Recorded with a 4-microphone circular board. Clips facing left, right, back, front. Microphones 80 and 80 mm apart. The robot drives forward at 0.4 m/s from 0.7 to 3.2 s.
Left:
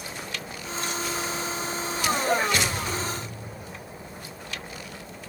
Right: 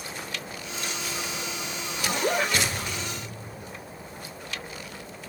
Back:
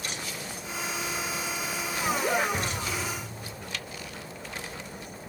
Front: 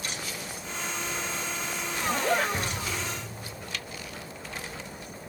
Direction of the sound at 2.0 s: 110° right.